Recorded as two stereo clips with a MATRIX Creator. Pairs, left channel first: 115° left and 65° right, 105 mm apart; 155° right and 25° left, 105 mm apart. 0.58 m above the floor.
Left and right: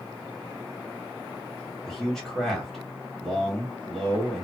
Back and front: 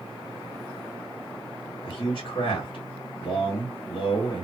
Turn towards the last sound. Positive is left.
turn(degrees=-160)